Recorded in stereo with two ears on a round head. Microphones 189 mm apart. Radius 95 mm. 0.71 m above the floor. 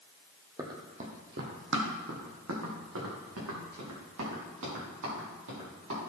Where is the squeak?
No squeak in this recording.